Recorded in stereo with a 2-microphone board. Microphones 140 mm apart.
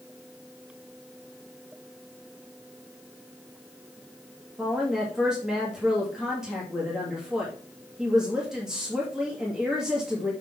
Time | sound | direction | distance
4.6 | a woman speaking | 5° right (ahead or behind) | 2 m